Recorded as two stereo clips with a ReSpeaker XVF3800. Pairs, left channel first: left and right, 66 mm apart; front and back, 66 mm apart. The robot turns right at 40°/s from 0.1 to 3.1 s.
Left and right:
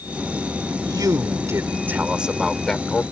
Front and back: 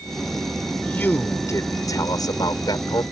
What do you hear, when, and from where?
0.8 s a man speaking: 70° right; by 3.0 s 20° left